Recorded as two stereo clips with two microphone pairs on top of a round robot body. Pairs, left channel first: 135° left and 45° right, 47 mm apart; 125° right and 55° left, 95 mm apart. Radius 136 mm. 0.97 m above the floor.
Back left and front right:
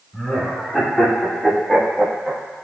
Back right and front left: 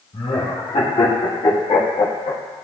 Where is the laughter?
155° right, 3 m; by 2.4 s 125° right, 1.3 m.